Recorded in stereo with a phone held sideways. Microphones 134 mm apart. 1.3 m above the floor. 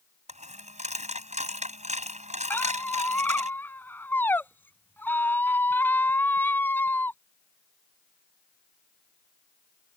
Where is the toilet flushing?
I don't hear a toilet flushing.